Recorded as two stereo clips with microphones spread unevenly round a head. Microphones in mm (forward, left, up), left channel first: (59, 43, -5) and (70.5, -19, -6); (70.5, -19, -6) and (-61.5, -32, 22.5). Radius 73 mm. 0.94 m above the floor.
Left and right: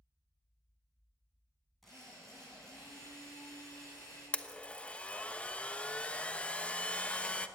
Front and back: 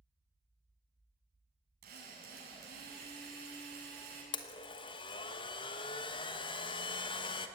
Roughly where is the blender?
Ahead left.